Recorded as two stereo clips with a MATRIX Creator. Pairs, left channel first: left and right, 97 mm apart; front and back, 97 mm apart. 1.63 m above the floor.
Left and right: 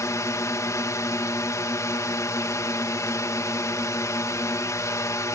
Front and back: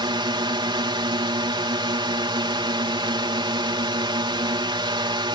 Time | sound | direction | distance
0.0 | a drone | 145° left | ?